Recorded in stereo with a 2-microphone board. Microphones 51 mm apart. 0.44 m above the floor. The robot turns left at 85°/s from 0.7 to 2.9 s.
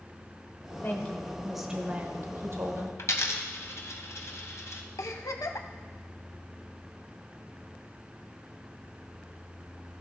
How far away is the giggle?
About 0.6 m.